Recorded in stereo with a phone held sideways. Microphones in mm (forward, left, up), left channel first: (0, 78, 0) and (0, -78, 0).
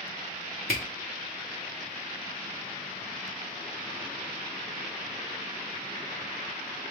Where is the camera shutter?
70° left (ahead or behind), 1.8 m.